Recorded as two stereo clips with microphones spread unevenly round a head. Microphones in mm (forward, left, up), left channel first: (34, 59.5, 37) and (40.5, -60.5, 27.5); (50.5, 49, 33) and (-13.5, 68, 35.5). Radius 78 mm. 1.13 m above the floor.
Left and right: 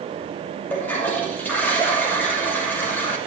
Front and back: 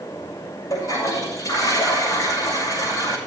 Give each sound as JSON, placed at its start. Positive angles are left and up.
{"t": 0.7, "sound": "a toilet flushing", "azimuth_deg": 20, "distance_m": 7.0}